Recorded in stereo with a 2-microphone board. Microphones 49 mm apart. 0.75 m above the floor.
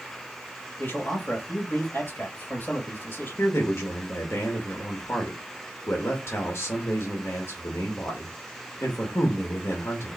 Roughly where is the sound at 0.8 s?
Left.